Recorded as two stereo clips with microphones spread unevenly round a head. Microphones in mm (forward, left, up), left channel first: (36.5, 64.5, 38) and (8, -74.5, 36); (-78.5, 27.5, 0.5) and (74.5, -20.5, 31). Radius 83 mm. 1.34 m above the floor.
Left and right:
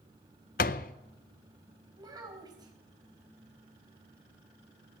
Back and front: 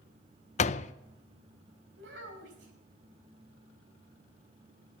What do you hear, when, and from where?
0.6 s a door slam: 110° left, 0.5 m
2.0 s a child speaking: 40° right, 4.5 m